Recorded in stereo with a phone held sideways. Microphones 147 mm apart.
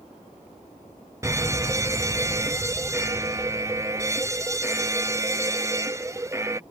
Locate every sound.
1.2 s an alarm: 20° right (ahead or behind)